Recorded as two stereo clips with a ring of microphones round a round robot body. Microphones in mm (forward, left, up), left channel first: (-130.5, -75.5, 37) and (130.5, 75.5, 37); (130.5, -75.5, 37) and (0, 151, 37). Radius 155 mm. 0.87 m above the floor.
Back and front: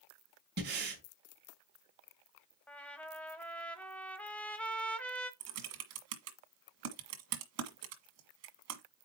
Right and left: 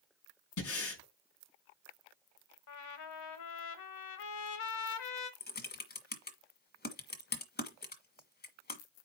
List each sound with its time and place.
0.6 s breathing: 30° right, 5 m
2.7 s a trumpet: 65° right, 1.1 m
5.4 s typing on a keyboard: 10° right, 1.6 m